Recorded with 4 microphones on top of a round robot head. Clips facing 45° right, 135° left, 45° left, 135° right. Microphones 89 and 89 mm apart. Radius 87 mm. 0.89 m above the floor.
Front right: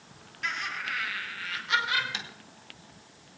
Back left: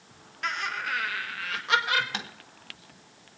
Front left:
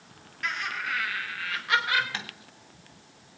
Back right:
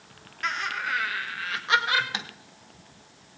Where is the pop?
I don't hear a pop.